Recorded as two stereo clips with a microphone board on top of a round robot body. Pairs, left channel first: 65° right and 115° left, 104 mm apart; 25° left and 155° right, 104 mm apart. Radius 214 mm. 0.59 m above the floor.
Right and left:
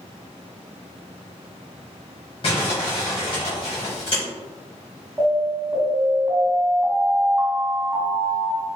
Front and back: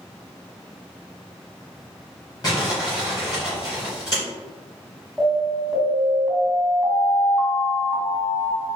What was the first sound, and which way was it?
Crumpling, 30° right.